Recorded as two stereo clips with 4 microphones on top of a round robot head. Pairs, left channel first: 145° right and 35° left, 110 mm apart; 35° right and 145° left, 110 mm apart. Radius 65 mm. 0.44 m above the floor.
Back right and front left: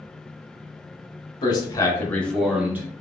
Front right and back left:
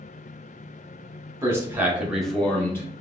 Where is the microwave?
No microwave in this recording.